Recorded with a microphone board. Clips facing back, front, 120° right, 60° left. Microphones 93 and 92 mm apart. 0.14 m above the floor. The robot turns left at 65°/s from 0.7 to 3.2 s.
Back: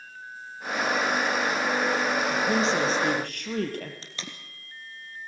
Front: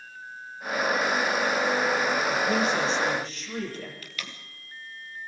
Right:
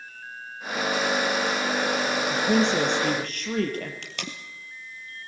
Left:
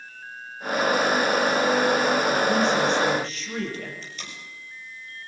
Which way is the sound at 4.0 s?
120° right.